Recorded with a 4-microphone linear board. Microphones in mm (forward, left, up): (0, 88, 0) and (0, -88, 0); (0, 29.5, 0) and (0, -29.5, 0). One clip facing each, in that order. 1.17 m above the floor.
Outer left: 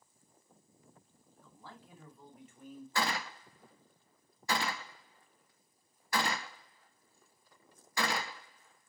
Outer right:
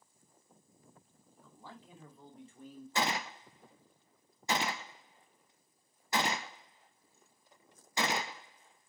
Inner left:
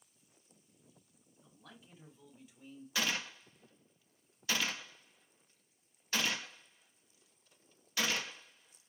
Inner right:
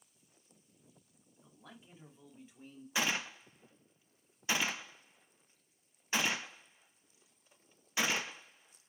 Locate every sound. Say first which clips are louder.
1.4 s a man speaking: outer right 1 dB, inner right 2 dB; 15° right (ahead or behind), 2.5 m; by 2.9 s 35° right (ahead or behind), 3 m
3.0 s a gunshot: outer right 1 dB, inner right 2 dB; 20° right (ahead or behind), 0.7 m